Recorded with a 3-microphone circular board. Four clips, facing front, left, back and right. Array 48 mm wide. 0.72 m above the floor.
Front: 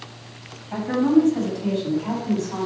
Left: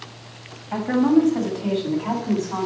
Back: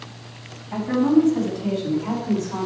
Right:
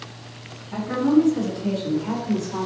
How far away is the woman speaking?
About 5 m.